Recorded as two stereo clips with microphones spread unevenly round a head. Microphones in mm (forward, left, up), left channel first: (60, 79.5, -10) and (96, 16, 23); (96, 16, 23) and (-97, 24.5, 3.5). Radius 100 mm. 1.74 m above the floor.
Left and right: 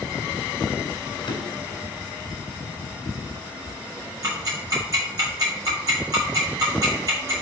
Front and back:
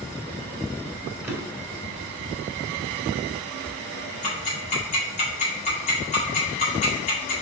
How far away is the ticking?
About 2.5 m.